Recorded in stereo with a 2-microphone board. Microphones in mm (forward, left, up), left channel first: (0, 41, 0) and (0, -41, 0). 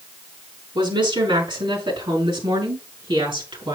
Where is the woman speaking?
80° right, 5 m; by 3.8 s 75° right (ahead or behind), 6 m.